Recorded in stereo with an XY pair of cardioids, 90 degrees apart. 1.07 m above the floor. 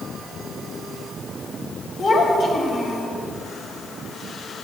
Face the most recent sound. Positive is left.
turn(degrees=65)